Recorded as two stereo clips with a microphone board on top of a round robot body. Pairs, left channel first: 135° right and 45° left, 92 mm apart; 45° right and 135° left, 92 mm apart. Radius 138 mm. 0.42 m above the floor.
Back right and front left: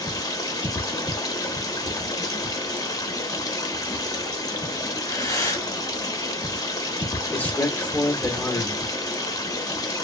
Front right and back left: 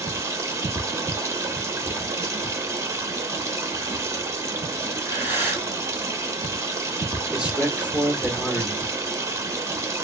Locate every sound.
0.0 s running water: 175° right, 1.0 m
4.9 s breathing: 170° right, 1.4 m
7.3 s a man speaking: 165° right, 1.3 m